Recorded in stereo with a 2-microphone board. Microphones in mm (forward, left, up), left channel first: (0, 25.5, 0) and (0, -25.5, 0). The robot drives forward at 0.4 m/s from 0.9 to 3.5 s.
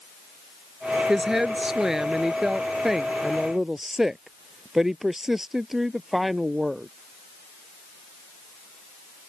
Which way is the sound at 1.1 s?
10° right (ahead or behind).